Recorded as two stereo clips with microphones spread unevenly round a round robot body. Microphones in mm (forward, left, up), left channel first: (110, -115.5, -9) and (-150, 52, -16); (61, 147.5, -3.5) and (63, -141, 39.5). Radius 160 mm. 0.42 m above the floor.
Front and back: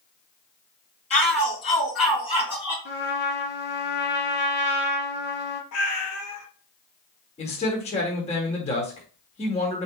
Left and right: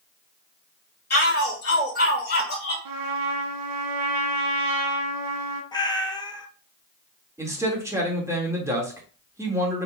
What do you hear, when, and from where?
1.1 s a shout: 40° left, 3.5 m
2.9 s a trumpet: 90° right, 1.4 m
5.7 s a cat meowing: 10° left, 1.2 m
7.4 s a man speaking: 5° right, 1.2 m